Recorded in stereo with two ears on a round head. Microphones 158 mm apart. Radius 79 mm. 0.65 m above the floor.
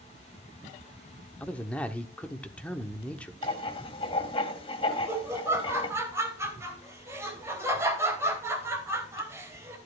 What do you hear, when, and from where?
1.4 s a man speaking: 10° left (ahead or behind), 1.2 m
3.4 s writing: 30° left (ahead or behind), 1.9 m
4.9 s laughter: 15° right (ahead or behind), 3.5 m